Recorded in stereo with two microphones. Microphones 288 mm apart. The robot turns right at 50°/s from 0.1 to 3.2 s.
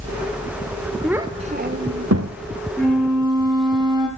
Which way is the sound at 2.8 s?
10° left (ahead or behind).